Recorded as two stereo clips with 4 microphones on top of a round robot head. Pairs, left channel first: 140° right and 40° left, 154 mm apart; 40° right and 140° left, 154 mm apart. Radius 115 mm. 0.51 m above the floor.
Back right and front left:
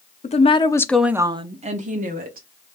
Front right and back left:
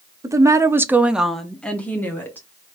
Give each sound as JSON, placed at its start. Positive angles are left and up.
{"t": 0.2, "sound": "a woman speaking", "azimuth_deg": -160, "distance_m": 0.9}